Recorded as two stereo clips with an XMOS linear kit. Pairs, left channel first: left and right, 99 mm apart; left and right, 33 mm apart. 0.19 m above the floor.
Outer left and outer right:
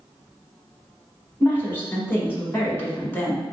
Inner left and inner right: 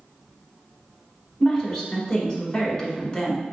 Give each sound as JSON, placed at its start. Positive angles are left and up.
{"t": 1.4, "sound": "a woman speaking", "side_deg": 25, "distance_m": 1.3}